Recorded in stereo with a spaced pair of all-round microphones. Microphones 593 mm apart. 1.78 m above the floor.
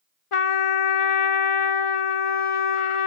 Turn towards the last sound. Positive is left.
turn(degrees=60)  # may be behind; listen again after turning